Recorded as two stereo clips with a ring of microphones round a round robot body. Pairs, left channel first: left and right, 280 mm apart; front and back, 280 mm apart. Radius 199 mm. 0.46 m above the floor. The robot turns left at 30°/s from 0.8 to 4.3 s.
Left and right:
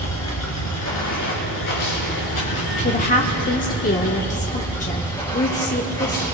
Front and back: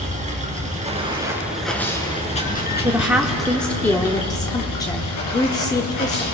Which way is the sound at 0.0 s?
115° left.